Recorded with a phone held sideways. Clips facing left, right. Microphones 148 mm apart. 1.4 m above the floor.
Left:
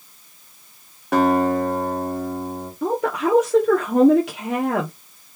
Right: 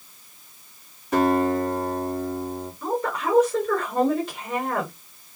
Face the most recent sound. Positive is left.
turn(degrees=80)